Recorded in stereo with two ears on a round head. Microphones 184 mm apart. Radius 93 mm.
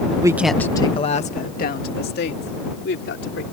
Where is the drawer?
No drawer in this recording.